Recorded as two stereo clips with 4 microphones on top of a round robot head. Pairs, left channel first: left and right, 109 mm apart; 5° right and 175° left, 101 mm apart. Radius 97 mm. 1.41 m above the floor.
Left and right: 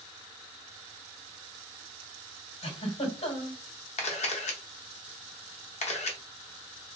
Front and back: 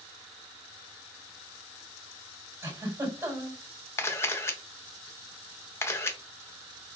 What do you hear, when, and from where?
2.6 s a giggle: 115° left, 3.5 m
4.0 s a camera shutter: 65° left, 0.8 m